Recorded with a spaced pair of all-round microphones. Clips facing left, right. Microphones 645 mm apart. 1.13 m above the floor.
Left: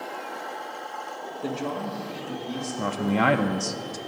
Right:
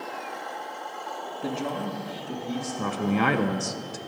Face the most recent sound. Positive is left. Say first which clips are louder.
# left 1 dB
turn(degrees=15)  # may be behind; listen again after turning